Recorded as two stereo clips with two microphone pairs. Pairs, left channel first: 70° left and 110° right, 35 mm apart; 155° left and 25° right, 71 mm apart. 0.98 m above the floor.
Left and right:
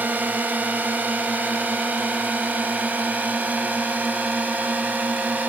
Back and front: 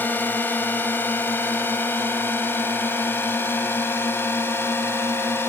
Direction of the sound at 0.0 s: 140° right.